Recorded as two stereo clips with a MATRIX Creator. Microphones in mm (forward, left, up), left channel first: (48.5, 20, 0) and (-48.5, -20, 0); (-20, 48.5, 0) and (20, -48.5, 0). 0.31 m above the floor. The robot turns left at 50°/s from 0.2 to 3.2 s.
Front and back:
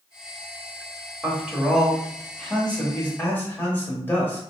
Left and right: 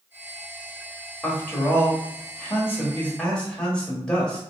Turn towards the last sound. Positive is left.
turn(degrees=50)